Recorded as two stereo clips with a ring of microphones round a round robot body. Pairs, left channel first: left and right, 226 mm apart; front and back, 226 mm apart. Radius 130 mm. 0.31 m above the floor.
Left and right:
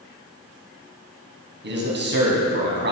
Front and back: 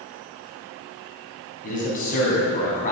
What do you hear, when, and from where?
1.6 s a man speaking: 55° right, 3.5 m